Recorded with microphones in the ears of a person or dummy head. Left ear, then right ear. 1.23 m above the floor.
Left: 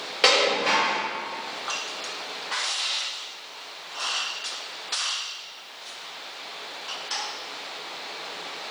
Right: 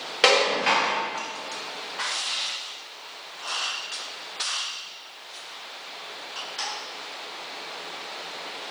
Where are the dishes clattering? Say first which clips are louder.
Even; 15° right (ahead or behind), 0.5 m.